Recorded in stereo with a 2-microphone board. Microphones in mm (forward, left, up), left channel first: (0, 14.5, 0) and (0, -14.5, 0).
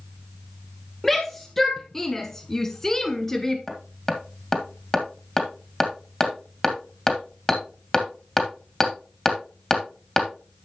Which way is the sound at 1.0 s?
10° left (ahead or behind).